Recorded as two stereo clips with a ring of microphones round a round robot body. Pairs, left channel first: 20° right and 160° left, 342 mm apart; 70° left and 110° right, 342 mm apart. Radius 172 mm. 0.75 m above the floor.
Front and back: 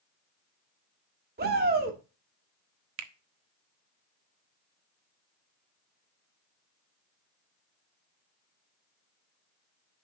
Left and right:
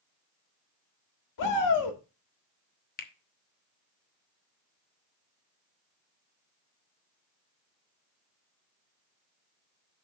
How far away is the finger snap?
About 0.8 m.